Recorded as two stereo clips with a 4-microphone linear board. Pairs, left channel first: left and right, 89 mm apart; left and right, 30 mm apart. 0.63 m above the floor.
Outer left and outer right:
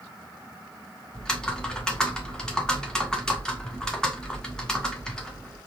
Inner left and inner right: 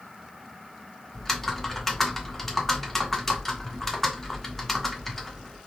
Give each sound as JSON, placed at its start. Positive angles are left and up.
{"t": 1.1, "sound": "typing on a keyboard", "side_deg": 10, "distance_m": 0.9}